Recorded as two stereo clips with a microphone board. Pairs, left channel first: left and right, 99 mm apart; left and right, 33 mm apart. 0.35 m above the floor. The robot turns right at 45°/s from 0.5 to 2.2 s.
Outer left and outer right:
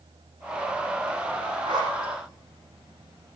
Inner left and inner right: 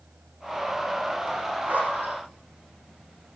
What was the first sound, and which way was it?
A zipper, 45° right (ahead or behind).